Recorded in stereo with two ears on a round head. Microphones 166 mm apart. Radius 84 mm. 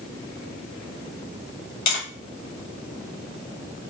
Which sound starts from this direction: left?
Tapping, at 1.9 s.